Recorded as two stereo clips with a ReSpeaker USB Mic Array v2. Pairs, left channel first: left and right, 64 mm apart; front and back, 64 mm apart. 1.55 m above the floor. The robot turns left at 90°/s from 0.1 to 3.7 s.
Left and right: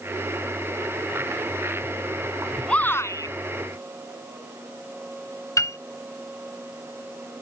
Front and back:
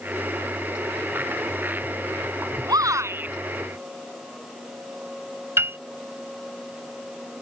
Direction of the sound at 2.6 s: 170° left.